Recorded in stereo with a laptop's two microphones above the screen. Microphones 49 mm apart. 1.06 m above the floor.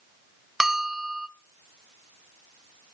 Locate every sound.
0.6 s a bell: 5° right (ahead or behind), 0.6 m